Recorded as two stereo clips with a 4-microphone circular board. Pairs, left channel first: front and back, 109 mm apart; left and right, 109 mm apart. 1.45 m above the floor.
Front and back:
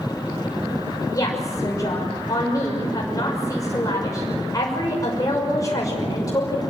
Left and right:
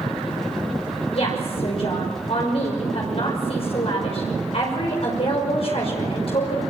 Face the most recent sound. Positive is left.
turn(degrees=60)